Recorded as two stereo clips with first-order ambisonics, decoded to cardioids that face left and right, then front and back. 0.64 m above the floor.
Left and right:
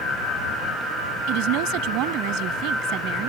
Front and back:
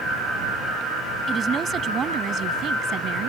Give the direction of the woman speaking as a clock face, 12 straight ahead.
4 o'clock.